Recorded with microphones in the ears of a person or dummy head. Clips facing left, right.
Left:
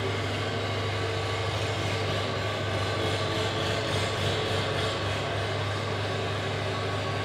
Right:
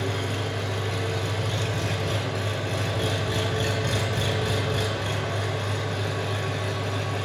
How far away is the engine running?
About 0.7 m.